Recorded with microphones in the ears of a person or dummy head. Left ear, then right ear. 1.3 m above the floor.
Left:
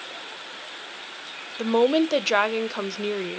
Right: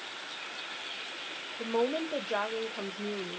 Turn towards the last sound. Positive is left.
turn(degrees=75)  # may be behind; listen again after turning